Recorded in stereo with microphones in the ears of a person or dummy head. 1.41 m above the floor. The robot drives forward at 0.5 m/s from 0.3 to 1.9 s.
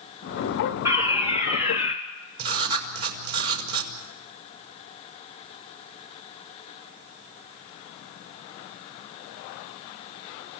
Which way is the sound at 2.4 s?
90° right.